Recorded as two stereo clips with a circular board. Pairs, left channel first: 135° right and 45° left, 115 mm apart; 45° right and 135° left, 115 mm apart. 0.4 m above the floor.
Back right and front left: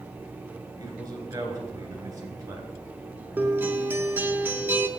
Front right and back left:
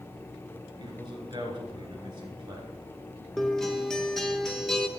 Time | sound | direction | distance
0.8 | a man speaking | 90° left | 3 m
3.4 | a guitar | 30° left | 0.8 m